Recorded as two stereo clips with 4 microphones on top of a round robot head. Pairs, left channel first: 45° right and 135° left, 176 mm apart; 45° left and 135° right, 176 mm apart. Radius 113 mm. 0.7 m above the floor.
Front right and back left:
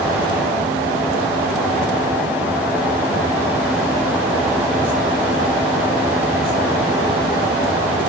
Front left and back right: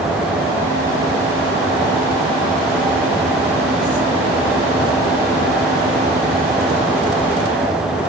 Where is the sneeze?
I don't hear a sneeze.